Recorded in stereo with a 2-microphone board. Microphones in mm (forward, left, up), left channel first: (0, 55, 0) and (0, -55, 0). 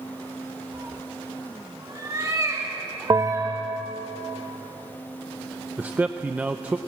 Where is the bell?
35° right (ahead or behind), 1.3 m.